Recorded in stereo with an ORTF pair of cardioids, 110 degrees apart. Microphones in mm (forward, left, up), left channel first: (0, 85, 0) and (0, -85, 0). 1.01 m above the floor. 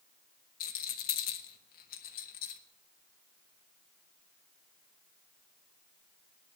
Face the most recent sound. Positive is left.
turn(degrees=70)